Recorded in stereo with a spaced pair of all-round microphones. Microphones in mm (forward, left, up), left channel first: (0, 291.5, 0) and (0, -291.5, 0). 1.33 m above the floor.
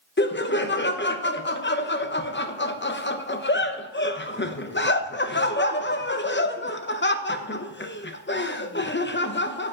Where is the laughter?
20° left (ahead or behind), 0.7 m.